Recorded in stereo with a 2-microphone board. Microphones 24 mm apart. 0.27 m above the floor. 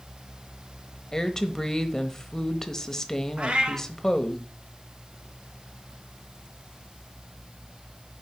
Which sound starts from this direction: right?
A cat meowing, at 3.4 s.